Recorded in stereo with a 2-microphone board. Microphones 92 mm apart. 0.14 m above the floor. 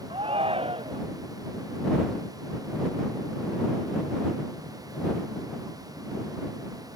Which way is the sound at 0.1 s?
85° right.